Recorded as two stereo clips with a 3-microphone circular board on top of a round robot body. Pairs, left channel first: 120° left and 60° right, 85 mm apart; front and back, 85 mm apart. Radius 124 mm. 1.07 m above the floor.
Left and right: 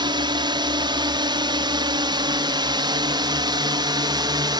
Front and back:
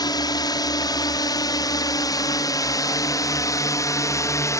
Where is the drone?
35° right; by 4.6 s 45° right.